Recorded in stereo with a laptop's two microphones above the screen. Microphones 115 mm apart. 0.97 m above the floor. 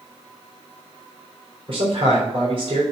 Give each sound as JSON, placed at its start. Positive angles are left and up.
{"t": 1.7, "sound": "a man speaking", "side_deg": -55, "distance_m": 3.0}